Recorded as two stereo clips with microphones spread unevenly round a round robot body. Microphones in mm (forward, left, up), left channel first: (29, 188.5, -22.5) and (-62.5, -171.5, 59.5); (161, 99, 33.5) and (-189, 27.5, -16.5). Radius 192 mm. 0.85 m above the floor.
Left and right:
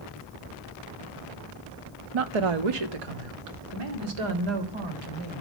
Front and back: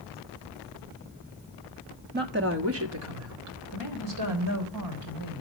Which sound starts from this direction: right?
A woman speaking, at 2.1 s.